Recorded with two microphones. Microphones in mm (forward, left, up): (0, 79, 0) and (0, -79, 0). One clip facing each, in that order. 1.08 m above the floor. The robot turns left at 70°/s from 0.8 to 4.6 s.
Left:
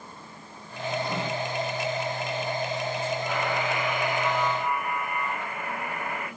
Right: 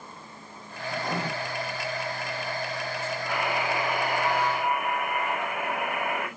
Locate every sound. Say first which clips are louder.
0.9 s writing: left 1 dB; 60° right (ahead or behind), 5 m; by 1.3 s 35° right (ahead or behind), 5 m
3.3 s a buzzer: even; straight ahead, 6 m; by 6.3 s 90° right, 6 m